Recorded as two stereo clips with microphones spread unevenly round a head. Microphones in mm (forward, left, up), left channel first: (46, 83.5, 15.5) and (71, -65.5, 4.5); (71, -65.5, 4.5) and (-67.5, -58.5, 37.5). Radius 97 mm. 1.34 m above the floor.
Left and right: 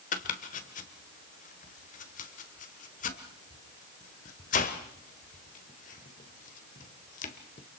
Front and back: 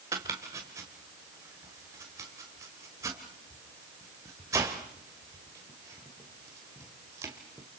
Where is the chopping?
115° left, 1.6 m.